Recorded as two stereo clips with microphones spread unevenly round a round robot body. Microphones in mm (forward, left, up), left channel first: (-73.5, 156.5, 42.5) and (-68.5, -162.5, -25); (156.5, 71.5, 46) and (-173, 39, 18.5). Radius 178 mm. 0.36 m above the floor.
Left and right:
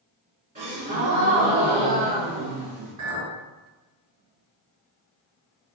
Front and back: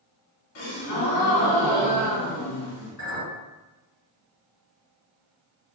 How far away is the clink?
About 1.7 m.